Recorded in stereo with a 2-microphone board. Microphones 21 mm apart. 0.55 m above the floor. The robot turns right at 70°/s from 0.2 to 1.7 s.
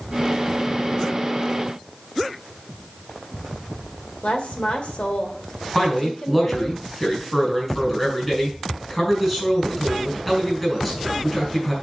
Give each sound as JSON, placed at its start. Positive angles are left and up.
{"t": 4.2, "sound": "a woman speaking", "side_deg": 60, "distance_m": 1.7}
{"t": 5.8, "sound": "a man speaking", "side_deg": 5, "distance_m": 4.0}